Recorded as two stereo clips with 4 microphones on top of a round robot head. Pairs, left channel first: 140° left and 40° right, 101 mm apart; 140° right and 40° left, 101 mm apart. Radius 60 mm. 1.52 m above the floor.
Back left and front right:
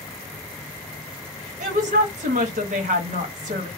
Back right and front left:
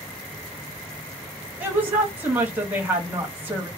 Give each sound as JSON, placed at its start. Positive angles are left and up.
{"t": 1.6, "sound": "a woman speaking", "azimuth_deg": -35, "distance_m": 0.9}